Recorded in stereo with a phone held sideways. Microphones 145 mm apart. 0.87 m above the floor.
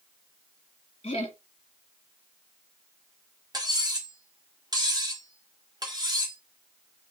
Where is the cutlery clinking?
25° right (ahead or behind), 1.1 m.